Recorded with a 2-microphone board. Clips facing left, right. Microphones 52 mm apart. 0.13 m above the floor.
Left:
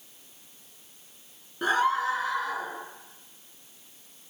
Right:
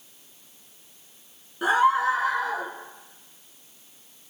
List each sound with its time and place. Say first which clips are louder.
1.6 s a scream: right 4 dB; 5° right (ahead or behind), 1.3 m; by 2.7 s 40° right (ahead or behind), 1.9 m